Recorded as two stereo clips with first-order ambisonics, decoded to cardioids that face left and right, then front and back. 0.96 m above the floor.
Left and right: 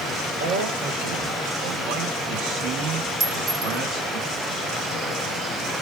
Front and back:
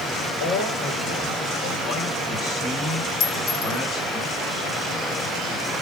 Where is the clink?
45° right, 2 m.